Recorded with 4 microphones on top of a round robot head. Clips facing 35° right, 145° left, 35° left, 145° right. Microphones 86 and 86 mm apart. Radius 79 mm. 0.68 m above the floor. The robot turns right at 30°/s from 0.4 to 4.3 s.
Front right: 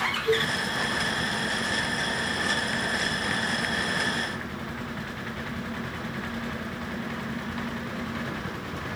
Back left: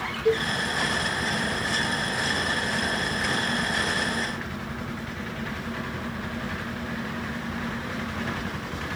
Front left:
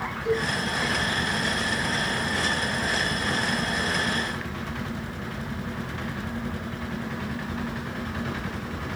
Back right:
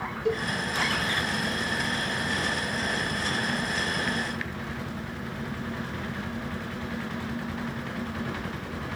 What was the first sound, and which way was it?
A cowbell, straight behind.